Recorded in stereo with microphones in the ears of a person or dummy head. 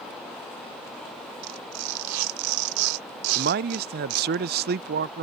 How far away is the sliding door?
I don't hear a sliding door.